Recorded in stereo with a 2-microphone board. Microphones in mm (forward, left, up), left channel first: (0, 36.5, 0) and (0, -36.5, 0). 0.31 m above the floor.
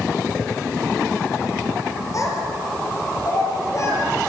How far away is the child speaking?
About 6 m.